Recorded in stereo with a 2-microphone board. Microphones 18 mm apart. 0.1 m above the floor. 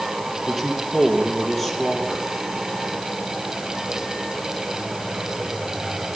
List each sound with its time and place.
0.5 s a man speaking: 15° left (ahead or behind), 3.5 m